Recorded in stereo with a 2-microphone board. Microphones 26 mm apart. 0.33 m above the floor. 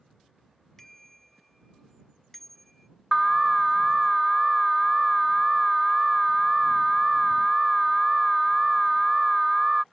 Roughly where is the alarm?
Centre.